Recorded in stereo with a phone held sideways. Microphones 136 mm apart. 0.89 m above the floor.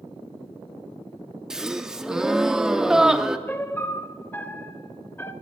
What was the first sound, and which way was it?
A gasp, 5° right (ahead or behind).